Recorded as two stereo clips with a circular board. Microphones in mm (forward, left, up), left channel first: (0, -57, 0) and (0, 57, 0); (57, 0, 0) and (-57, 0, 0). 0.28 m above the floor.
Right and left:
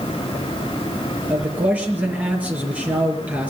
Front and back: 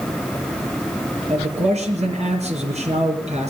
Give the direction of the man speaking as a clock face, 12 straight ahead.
6 o'clock.